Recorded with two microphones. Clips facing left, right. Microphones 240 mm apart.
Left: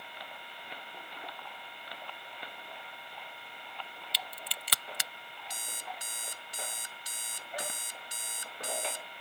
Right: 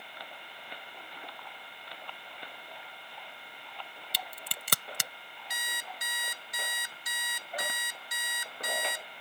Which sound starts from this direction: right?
A crack, at 4.1 s.